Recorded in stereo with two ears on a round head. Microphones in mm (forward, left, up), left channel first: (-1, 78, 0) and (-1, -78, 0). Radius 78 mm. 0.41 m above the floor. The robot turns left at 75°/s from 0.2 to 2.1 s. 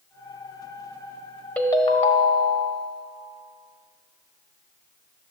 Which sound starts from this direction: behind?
A ringtone, at 1.6 s.